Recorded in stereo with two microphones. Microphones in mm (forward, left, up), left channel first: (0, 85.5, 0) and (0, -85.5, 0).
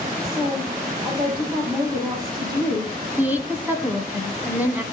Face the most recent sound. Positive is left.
turn(degrees=-10)  # may be behind; listen again after turning